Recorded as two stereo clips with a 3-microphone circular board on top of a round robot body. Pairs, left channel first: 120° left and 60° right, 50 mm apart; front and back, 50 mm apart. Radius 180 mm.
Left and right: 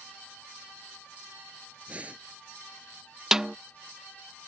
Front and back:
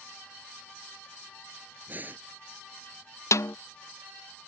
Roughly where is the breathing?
Behind right.